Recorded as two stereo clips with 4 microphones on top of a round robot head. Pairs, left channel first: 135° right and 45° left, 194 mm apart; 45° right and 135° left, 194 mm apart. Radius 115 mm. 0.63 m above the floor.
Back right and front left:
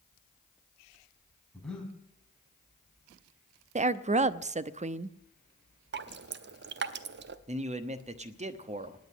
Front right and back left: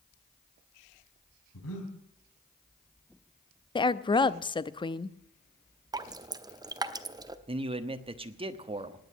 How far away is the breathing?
About 3 m.